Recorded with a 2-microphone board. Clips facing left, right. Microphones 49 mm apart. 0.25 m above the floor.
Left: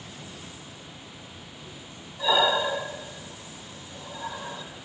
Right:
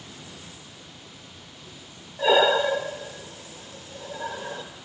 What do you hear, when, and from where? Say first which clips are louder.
2.2 s breathing: right 4 dB; 80° right, 1.6 m